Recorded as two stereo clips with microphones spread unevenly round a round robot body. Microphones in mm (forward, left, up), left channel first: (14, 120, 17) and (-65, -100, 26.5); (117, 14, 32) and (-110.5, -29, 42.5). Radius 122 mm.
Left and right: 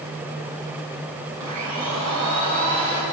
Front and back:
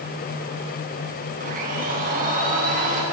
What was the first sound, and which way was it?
A blender, 115° right.